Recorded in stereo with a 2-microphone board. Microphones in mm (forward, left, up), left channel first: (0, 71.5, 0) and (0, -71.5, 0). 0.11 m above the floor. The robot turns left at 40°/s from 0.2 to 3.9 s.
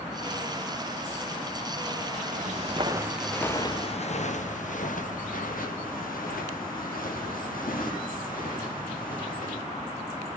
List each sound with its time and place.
2.3 s footsteps: 70° right (ahead or behind), 1.1 m; by 9.6 s 80° left, 4 m